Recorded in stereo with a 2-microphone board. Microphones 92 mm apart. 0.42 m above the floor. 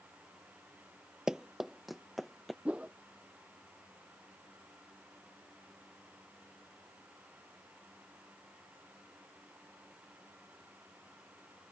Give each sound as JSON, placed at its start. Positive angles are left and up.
{"t": 1.3, "sound": "running footsteps", "side_deg": -10}
{"t": 2.6, "sound": "a whoosh", "side_deg": -15}